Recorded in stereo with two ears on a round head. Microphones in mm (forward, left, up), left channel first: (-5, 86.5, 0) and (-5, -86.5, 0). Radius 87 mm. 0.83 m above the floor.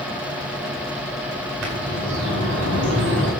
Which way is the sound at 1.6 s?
65° right (ahead or behind).